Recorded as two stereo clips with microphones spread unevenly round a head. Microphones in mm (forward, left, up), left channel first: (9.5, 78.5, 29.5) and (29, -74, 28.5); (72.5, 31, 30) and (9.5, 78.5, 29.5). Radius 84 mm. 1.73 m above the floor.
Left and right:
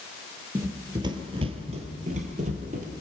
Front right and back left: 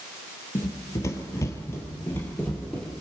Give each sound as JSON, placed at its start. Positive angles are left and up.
{"t": 0.6, "sound": "running footsteps", "azimuth_deg": -20, "distance_m": 2.5}